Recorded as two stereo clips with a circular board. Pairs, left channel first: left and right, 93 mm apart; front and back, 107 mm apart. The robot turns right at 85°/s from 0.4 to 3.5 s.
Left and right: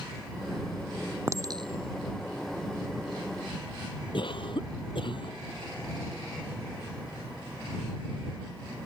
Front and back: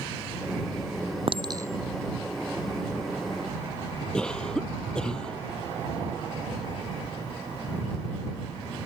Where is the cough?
85° left.